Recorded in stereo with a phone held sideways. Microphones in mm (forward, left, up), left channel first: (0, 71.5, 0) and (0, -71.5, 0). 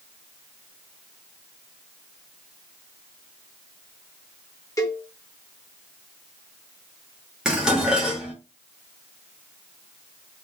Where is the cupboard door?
I don't hear a cupboard door.